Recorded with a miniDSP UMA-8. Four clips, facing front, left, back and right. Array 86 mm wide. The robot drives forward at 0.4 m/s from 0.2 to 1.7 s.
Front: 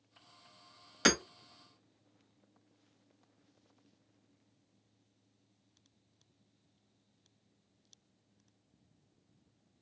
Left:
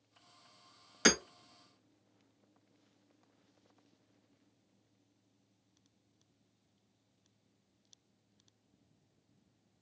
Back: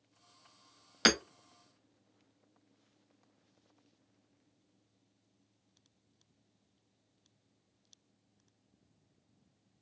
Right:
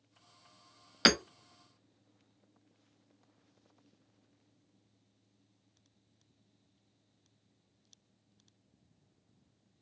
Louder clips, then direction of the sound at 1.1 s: Right 2 dB, even; 115° right.